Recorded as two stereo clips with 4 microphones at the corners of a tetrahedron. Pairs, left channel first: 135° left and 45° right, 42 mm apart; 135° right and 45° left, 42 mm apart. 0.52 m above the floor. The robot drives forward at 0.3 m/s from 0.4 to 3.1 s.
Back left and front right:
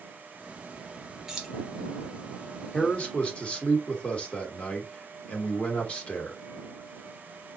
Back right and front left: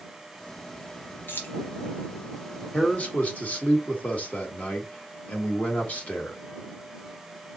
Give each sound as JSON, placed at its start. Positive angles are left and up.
{"t": 1.3, "sound": "keys jangling", "azimuth_deg": -120, "distance_m": 1.1}
{"t": 2.7, "sound": "a man speaking", "azimuth_deg": -175, "distance_m": 1.3}